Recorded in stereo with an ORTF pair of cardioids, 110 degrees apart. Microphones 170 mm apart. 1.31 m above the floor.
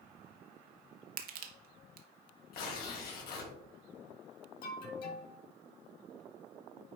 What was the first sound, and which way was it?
Crushing, 60° right.